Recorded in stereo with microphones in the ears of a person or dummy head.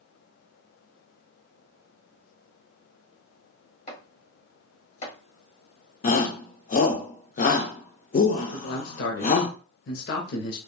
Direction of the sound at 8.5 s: 55° left (ahead or behind).